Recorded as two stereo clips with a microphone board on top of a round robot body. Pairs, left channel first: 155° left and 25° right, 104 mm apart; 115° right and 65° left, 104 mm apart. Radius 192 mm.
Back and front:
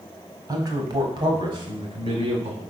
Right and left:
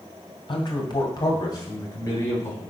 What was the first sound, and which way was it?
A man speaking, 75° right.